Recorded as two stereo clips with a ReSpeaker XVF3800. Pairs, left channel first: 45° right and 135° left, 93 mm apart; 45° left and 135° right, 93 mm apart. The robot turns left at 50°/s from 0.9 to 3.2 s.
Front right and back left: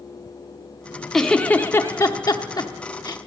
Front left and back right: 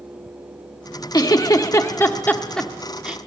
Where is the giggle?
40° left, 0.9 m; by 3.2 s 65° right, 0.9 m.